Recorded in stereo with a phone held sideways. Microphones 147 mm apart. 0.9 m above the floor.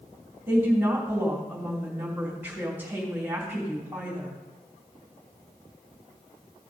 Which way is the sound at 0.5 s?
15° right (ahead or behind).